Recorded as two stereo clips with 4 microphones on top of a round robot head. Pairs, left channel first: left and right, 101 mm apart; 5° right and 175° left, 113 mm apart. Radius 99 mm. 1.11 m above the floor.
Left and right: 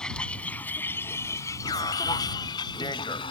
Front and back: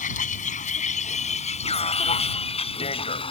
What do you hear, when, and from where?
0.0 s a vehicle: 5° left; by 3.3 s 35° left
1.6 s an alarm: 30° left